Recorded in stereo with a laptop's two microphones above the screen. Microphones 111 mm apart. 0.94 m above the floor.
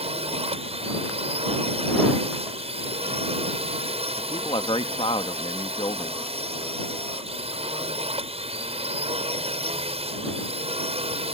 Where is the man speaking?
55° left (ahead or behind).